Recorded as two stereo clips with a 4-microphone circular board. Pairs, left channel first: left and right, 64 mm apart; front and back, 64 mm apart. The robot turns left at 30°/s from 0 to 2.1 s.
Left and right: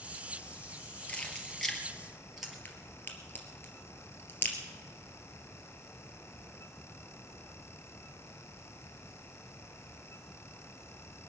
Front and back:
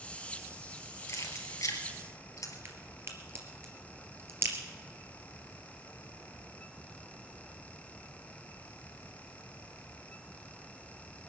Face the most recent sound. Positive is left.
turn(degrees=145)